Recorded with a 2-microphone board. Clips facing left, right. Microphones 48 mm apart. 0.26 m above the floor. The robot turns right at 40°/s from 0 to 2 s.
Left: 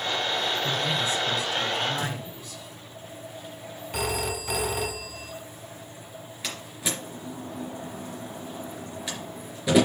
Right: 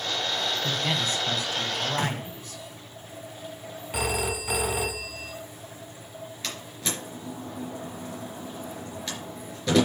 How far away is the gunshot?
About 0.8 m.